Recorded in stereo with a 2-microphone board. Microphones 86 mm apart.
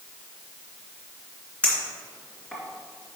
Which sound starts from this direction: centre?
A clink, at 1.6 s.